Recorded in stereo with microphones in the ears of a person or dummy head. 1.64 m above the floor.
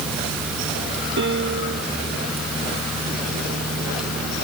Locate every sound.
1.2 s a piano: 60° right (ahead or behind)